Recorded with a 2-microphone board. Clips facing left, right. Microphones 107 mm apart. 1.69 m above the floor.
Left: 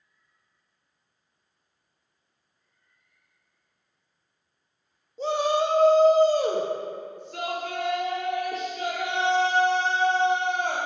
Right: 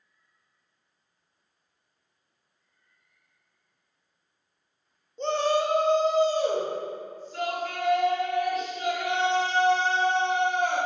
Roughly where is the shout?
Centre.